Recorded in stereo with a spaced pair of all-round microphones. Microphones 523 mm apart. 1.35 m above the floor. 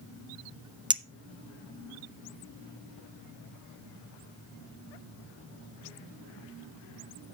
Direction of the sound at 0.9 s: 10° right (ahead or behind).